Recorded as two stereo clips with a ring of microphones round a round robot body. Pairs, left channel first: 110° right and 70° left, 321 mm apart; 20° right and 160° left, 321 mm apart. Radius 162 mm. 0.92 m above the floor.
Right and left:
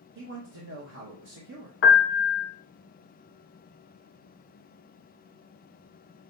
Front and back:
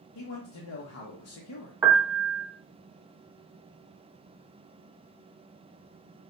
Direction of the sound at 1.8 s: 125° right.